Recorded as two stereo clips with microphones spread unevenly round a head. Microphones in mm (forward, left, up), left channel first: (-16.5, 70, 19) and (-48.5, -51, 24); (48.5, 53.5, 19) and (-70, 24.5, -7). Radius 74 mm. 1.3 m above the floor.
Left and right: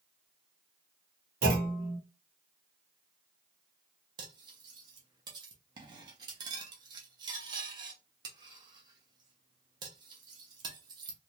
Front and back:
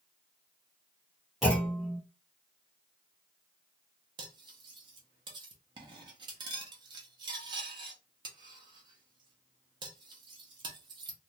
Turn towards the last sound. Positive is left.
turn(degrees=-115)